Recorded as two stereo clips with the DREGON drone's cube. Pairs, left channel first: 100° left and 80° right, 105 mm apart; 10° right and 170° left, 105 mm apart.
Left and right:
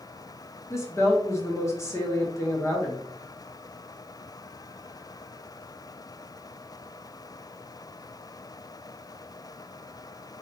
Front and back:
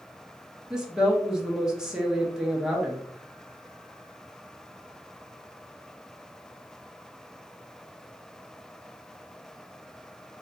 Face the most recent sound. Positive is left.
turn(degrees=90)